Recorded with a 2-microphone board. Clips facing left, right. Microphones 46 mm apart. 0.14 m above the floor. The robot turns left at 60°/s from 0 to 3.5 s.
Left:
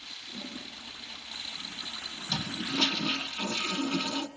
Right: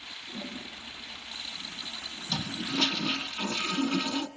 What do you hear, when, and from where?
0.3 s a toilet flushing: 165° right, 2 m; by 3.3 s 15° left, 2 m
2.3 s a toilet flushing: 10° left (ahead or behind), 1.5 m; by 4.3 s 15° right (ahead or behind), 1.5 m